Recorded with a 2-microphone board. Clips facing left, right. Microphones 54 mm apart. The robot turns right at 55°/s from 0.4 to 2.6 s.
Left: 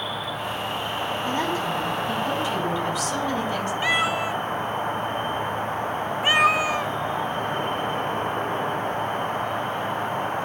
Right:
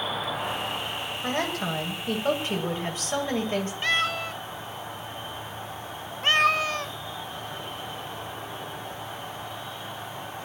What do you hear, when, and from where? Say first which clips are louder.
0.0 s an insect: even; straight ahead, 0.9 m; by 10.4 s 120° left, 0.9 m
1.2 s a woman speaking: left 1 dB; 115° right, 7.5 m; by 3.7 s 35° right, 7.5 m
3.8 s a cat meowing: left 5 dB; 10° left (ahead or behind), 0.5 m